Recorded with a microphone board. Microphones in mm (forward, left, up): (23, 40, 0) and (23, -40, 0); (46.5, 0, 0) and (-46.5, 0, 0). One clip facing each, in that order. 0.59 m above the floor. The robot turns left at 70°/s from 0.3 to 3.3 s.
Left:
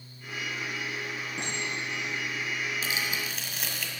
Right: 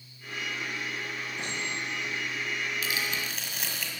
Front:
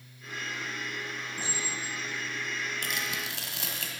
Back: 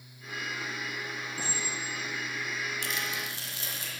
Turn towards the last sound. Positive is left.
turn(degrees=0)